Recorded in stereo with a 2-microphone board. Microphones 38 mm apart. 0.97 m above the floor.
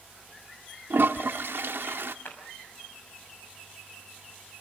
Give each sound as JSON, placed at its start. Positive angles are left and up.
{"t": 0.9, "sound": "a toilet flushing", "side_deg": -75, "distance_m": 1.1}
{"t": 2.2, "sound": "a clap", "side_deg": 80, "distance_m": 5.5}